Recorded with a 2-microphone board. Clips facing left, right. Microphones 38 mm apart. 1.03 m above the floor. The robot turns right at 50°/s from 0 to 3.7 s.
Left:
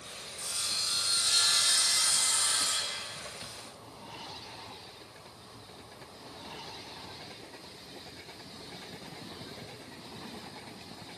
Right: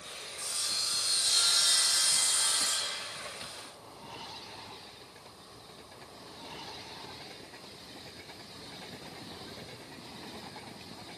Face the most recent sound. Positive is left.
turn(degrees=-175)